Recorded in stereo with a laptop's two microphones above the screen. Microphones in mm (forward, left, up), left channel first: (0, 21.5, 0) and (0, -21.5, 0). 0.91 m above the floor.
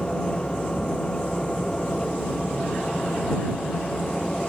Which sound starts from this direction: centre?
A machine running, at 0.0 s.